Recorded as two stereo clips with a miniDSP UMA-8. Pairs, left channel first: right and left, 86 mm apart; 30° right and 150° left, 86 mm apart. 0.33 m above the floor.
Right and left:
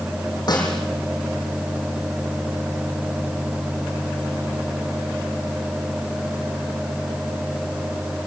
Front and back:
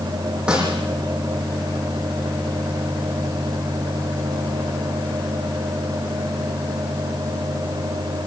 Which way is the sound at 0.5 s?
130° right.